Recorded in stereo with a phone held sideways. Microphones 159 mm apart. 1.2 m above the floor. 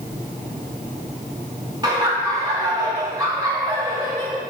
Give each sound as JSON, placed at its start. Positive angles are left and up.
{"t": 1.8, "sound": "laughter", "side_deg": -25, "distance_m": 2.5}